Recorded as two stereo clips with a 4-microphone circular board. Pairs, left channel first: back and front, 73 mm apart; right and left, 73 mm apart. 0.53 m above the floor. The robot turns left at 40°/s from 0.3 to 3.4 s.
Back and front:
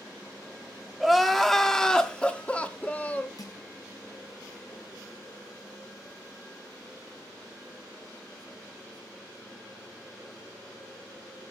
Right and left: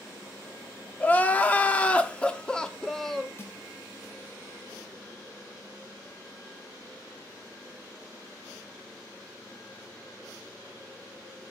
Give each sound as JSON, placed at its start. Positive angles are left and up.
{"t": 1.0, "sound": "crying", "azimuth_deg": -85, "distance_m": 0.9}
{"t": 3.4, "sound": "crushing", "azimuth_deg": -145, "distance_m": 4.0}